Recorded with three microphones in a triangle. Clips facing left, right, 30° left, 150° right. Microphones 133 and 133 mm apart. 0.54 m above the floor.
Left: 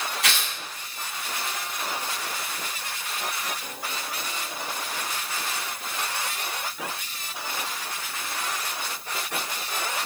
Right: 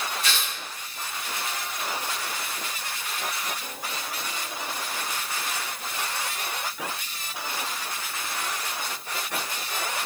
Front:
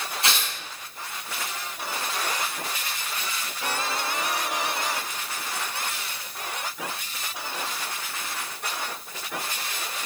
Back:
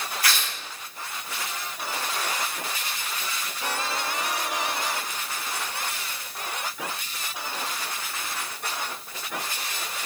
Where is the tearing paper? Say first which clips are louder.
Left 1 dB, front 1 dB; 95° left, 2 m.